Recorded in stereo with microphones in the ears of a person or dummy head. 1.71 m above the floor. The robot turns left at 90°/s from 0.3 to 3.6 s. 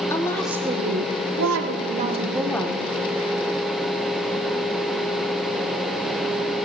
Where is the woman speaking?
15° left, 1.7 m; by 2.9 s 145° left, 1.7 m.